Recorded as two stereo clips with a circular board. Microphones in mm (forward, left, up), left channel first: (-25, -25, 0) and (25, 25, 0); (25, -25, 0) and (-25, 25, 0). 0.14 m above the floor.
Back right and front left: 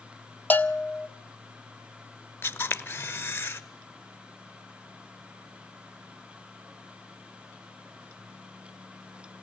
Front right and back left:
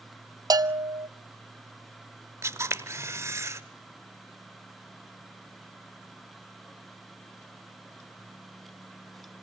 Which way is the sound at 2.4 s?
170° left.